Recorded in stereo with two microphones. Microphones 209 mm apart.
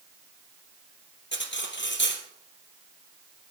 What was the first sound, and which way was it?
Cutlery clinking, 60° left (ahead or behind).